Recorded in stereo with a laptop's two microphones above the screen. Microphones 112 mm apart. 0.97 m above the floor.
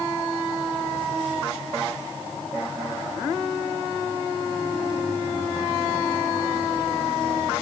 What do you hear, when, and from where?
Only background noise.